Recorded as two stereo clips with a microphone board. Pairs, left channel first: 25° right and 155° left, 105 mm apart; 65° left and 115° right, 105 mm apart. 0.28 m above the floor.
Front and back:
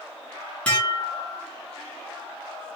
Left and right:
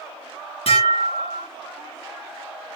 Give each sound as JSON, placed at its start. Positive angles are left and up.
{"t": 0.7, "sound": "dishes clattering", "azimuth_deg": 60, "distance_m": 1.6}